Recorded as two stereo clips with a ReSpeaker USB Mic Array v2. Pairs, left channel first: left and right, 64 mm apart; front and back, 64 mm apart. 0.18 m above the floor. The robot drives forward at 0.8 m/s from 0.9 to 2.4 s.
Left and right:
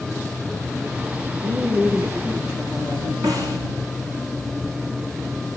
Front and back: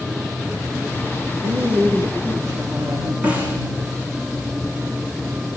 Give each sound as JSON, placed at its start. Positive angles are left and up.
{"t": 1.4, "sound": "a woman speaking", "azimuth_deg": -150, "distance_m": 4.5}
{"t": 3.2, "sound": "a snare drum", "azimuth_deg": -115, "distance_m": 6.0}